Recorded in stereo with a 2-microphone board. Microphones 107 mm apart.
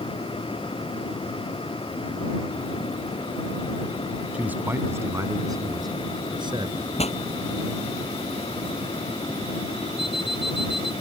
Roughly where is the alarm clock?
Left.